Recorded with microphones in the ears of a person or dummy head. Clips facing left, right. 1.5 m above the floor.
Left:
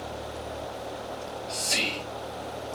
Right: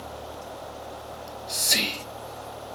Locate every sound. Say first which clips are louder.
1.1 s whispering: left 3 dB; 15° right (ahead or behind), 0.7 m